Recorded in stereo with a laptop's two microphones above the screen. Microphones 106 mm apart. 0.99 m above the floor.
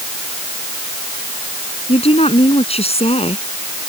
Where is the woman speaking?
65° left (ahead or behind).